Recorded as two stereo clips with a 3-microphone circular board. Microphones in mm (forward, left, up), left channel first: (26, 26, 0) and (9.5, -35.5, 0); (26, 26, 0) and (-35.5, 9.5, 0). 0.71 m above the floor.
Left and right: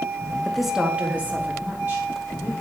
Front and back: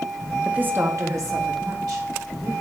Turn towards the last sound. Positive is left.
turn(degrees=-155)